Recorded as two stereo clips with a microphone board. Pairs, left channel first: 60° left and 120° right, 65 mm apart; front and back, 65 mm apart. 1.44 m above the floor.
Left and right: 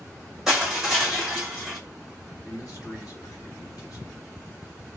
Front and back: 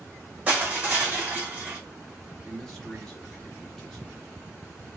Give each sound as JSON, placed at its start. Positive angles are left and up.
{"t": 0.5, "sound": "crushing", "azimuth_deg": 165, "distance_m": 1.3}
{"t": 2.4, "sound": "a man speaking", "azimuth_deg": 80, "distance_m": 1.4}